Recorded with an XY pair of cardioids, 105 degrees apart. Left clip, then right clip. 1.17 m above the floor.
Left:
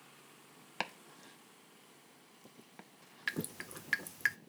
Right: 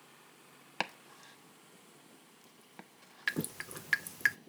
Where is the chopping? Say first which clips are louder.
Right 3 dB; 20° right, 0.8 m.